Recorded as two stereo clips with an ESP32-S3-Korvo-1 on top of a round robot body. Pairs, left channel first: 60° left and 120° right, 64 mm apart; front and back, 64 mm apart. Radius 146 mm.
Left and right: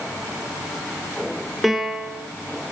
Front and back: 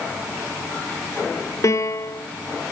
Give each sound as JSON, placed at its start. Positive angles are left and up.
{"t": 1.6, "sound": "a piano", "azimuth_deg": -35, "distance_m": 2.5}